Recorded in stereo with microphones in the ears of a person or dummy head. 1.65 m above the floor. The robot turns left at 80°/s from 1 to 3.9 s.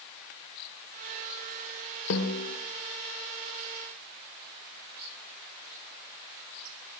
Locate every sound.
2.1 s a snare drum: 105° left, 2.5 m; by 2.6 s 65° left, 2.5 m